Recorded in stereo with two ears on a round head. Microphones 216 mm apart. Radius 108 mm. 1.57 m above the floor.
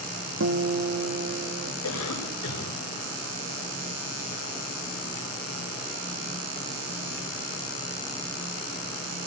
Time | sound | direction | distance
0.4 | a guitar | 50° right (ahead or behind) | 1.4 m
1.8 | a cough | 90° left | 9 m